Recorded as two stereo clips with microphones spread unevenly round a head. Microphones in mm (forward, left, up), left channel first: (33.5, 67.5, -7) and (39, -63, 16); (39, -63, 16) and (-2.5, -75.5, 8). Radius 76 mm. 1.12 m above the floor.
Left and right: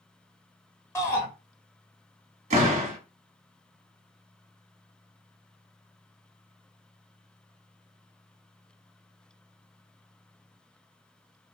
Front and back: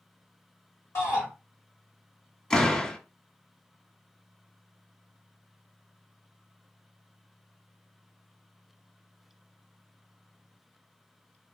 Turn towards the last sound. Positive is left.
turn(degrees=-55)